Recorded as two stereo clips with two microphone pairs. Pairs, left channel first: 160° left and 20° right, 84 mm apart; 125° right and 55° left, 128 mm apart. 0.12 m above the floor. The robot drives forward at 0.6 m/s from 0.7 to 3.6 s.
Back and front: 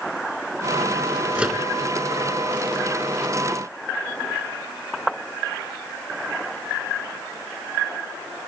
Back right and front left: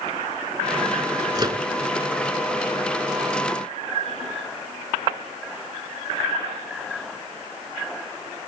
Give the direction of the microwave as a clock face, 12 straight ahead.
10 o'clock.